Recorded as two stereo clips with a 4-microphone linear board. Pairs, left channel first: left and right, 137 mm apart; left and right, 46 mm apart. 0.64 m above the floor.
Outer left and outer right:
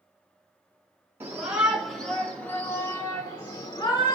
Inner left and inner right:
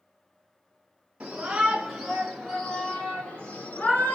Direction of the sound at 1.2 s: 15° right (ahead or behind).